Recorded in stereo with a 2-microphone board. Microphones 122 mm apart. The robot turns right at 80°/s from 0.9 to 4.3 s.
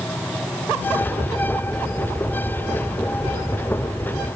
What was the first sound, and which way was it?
Only background noise.